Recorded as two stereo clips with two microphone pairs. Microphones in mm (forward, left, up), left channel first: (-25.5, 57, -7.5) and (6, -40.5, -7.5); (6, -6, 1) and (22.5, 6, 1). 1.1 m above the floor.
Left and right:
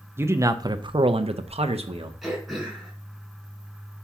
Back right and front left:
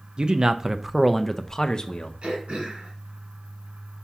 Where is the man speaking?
5° right, 0.7 m; by 2.1 s 90° right, 0.8 m.